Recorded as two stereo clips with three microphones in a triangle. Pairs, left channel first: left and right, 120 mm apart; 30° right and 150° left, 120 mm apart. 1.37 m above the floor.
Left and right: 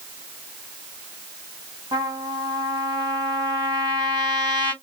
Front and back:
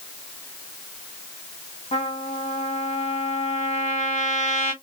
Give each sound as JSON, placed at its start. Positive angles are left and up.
{"t": 1.9, "sound": "a trumpet", "azimuth_deg": -35, "distance_m": 2.5}